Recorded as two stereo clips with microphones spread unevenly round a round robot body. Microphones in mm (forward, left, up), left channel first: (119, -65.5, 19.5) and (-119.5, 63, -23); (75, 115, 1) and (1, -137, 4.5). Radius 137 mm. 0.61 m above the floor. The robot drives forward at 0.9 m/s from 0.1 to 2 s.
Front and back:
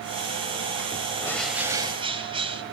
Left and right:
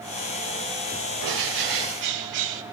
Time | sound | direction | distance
1.2 | a bird | 105° right | 1.1 m